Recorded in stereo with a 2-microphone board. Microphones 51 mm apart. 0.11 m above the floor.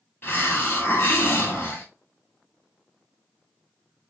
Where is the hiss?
40° left (ahead or behind), 1.1 m.